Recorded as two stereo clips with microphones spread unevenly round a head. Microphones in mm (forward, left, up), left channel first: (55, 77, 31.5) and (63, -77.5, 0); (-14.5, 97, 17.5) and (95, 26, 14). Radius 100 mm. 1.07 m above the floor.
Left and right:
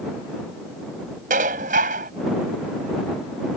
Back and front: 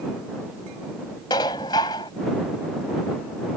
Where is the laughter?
I don't hear laughter.